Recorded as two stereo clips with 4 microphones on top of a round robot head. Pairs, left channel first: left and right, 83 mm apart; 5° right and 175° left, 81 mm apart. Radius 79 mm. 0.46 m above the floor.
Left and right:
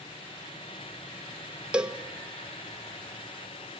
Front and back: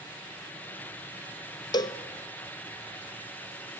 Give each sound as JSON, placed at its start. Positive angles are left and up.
{"t": 1.7, "sound": "a cowbell", "azimuth_deg": -10, "distance_m": 0.9}